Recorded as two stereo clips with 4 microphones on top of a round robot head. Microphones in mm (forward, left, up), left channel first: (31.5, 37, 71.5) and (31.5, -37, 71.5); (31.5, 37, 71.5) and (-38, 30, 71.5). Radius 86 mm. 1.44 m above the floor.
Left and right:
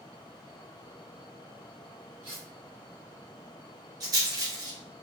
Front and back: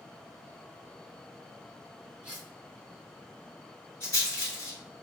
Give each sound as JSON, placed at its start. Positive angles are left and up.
{"t": 2.2, "sound": "cutlery clinking", "azimuth_deg": -95, "distance_m": 1.6}
{"t": 4.0, "sound": "a rattle", "azimuth_deg": -65, "distance_m": 1.3}